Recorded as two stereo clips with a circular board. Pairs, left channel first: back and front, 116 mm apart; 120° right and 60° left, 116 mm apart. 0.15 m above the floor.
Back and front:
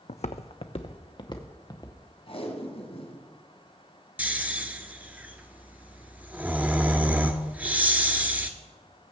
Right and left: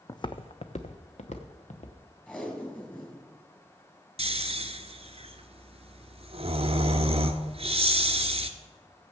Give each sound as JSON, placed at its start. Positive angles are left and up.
{"t": 0.1, "sound": "footsteps", "azimuth_deg": -175, "distance_m": 0.5}
{"t": 2.3, "sound": "tape being pulled", "azimuth_deg": 165, "distance_m": 2.0}
{"t": 4.2, "sound": "snoring", "azimuth_deg": 75, "distance_m": 0.8}